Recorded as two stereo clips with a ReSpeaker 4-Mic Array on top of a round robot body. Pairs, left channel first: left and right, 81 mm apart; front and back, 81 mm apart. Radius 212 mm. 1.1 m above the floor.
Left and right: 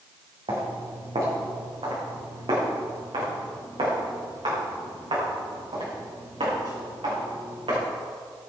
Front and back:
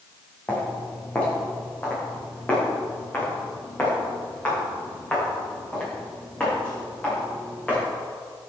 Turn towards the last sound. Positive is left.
turn(degrees=-75)